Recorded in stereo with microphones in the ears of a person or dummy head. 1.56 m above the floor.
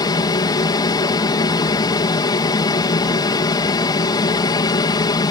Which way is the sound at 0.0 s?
20° left (ahead or behind).